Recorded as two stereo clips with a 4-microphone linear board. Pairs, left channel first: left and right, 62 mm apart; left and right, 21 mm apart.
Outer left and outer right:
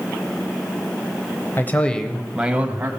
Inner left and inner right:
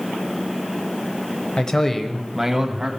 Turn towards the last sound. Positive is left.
turn(degrees=-30)  # may be behind; listen again after turning